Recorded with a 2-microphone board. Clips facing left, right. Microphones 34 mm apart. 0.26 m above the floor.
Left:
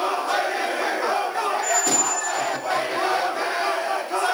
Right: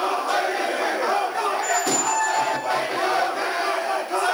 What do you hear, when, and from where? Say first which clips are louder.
1.5 s a squeak: even; 45° right (ahead or behind), 1.1 m